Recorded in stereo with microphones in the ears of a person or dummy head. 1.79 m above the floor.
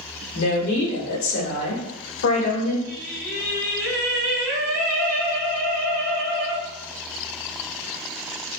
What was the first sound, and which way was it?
A woman speaking, 65° left (ahead or behind).